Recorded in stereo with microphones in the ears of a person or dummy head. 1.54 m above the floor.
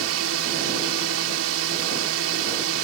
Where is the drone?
80° right.